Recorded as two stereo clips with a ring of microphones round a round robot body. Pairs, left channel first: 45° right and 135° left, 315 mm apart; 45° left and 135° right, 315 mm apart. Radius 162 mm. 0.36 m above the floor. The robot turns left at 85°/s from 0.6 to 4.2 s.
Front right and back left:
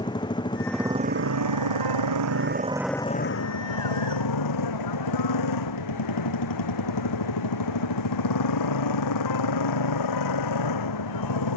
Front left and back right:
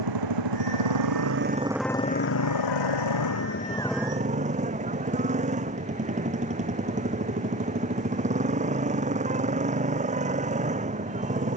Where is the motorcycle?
120° right; by 11.6 s 65° right.